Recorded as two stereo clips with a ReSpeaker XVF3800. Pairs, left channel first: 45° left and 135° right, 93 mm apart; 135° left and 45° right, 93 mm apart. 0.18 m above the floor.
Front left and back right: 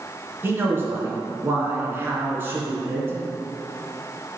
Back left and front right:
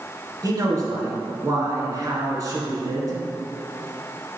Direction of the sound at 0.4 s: 75° right.